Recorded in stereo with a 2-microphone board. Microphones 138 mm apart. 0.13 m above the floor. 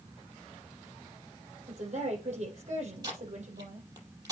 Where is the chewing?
I don't hear chewing.